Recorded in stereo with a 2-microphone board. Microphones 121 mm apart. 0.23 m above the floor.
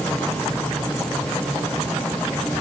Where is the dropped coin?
No dropped coin in this recording.